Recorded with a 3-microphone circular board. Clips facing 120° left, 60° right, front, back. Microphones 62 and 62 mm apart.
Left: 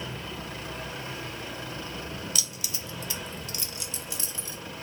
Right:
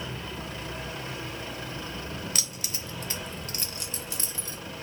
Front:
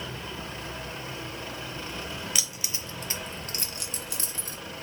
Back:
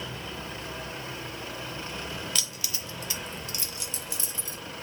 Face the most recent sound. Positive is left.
turn(degrees=-10)